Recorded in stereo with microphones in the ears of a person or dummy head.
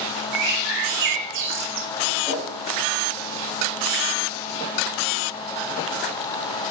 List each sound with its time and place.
0.3 s a bird: 50° right (ahead or behind), 1.5 m
2.3 s a whoosh: centre (ahead or behind), 5.5 m